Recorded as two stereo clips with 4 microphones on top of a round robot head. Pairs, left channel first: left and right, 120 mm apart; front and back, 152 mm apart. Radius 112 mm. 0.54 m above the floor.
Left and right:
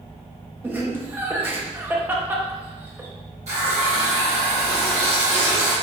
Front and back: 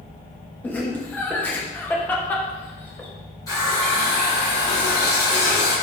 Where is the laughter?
60° right, 0.6 m.